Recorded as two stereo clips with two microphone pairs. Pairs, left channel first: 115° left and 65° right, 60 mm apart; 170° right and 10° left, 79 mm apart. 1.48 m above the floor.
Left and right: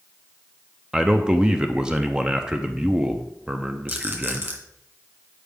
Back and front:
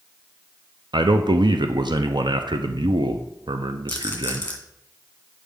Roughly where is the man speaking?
Ahead.